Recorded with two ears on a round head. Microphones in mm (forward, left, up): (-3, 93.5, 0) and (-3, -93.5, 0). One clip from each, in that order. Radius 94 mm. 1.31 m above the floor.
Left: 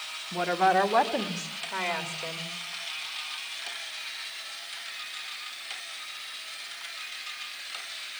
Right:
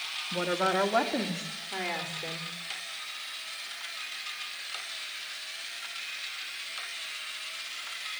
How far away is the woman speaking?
About 2.0 m.